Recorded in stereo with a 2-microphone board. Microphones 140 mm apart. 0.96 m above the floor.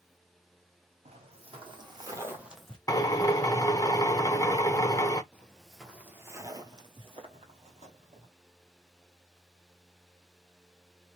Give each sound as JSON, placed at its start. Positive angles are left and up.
{"t": 1.1, "sound": "footsteps", "side_deg": -50, "distance_m": 2.0}
{"t": 2.9, "sound": "a drill", "side_deg": 25, "distance_m": 0.6}
{"t": 5.3, "sound": "footsteps", "side_deg": 10, "distance_m": 1.0}